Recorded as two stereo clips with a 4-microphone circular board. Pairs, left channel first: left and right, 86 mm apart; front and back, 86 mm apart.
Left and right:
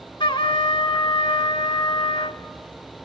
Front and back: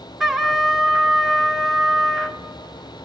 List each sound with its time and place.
0.2 s a trumpet: 95° left, 1.2 m